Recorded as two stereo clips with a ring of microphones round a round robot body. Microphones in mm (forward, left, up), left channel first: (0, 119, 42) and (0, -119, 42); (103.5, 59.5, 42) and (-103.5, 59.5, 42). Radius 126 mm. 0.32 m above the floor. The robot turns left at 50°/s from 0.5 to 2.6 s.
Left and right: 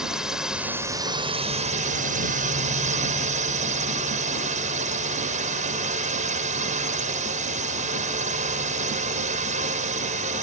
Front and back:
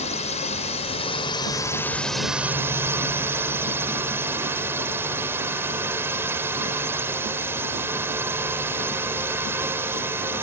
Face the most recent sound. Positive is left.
turn(degrees=-110)